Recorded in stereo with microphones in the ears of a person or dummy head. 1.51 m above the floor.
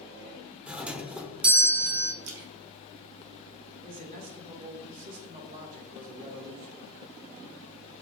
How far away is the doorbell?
About 0.7 m.